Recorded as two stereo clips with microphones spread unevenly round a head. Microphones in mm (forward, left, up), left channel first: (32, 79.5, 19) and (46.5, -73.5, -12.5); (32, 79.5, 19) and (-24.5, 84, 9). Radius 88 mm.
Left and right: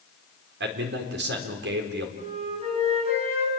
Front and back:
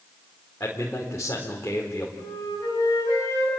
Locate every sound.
0.6 s a man speaking: 80° right, 4 m
2.2 s a flute: 35° right, 9 m